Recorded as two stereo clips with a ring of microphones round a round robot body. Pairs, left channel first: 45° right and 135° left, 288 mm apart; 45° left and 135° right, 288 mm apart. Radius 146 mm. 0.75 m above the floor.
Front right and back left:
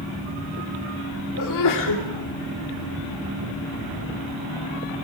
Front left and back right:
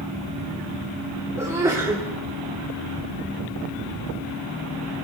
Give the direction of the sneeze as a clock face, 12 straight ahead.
2 o'clock.